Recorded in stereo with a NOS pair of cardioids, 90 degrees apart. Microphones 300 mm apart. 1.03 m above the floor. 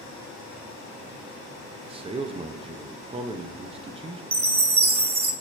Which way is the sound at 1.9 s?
20° right.